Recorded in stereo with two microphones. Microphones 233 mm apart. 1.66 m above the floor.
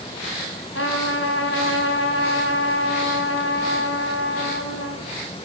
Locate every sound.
0.8 s a trumpet: 65° left (ahead or behind), 5.5 m